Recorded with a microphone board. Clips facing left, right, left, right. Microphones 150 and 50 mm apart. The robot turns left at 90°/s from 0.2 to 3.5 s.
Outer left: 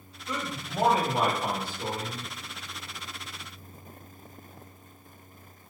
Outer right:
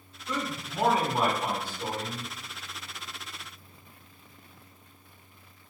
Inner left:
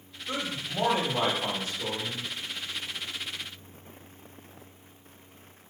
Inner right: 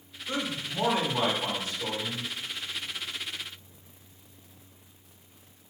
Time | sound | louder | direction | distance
0.3 | a man speaking | outer right 1 dB, inner right 1 dB | 170° left | 2 m